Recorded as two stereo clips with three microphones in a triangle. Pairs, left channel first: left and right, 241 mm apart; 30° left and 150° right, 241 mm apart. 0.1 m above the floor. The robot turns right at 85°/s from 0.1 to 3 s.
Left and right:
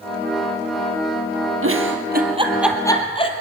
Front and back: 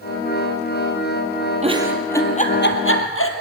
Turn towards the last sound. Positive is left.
turn(degrees=25)